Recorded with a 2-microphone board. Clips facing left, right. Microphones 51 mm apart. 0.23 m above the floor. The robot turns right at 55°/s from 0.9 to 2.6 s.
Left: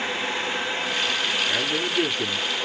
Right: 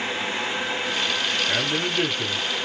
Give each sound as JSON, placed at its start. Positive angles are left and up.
{"t": 1.5, "sound": "a man speaking", "azimuth_deg": -35, "distance_m": 2.0}